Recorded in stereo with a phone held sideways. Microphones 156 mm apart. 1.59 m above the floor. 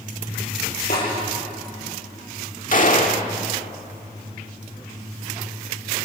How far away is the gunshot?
About 1.8 m.